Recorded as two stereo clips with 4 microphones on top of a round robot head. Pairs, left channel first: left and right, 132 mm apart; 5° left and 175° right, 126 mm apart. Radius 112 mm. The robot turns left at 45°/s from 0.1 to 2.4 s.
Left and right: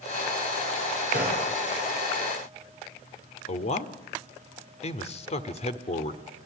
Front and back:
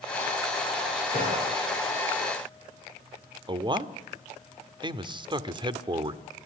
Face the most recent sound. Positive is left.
turn(degrees=130)